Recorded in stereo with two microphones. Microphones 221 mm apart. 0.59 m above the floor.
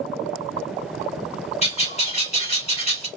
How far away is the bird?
About 1.6 m.